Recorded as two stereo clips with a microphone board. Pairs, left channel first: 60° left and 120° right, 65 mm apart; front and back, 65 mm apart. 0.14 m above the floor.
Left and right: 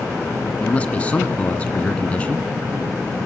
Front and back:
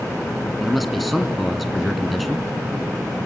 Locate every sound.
0.6 s a man speaking: 90° left, 1.4 m